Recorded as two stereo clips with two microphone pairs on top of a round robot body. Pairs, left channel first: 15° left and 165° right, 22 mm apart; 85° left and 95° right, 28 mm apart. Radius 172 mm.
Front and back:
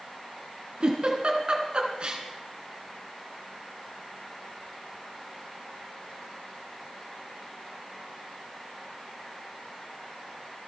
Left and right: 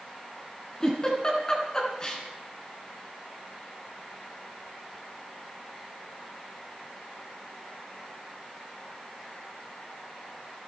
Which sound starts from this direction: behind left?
A giggle, at 0.8 s.